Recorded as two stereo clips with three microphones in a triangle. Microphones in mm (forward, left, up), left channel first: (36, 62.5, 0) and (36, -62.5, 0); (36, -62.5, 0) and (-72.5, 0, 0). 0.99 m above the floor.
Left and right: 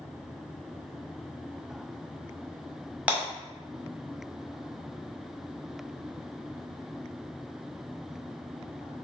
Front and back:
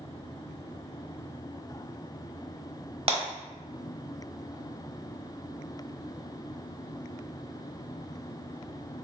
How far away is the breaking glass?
About 1.2 m.